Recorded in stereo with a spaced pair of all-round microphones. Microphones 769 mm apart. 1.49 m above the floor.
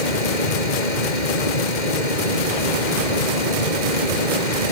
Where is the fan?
70° left (ahead or behind).